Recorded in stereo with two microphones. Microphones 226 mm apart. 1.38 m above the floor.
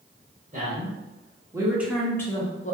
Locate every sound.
0.5 s a man speaking: 35° right (ahead or behind), 1.2 m; by 2.7 s 35° left (ahead or behind), 0.6 m